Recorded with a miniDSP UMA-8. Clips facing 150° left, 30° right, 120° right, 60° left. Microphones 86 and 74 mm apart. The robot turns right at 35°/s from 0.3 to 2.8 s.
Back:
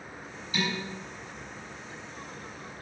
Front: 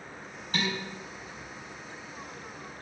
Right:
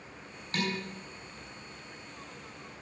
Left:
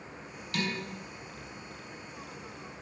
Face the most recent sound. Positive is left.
turn(degrees=10)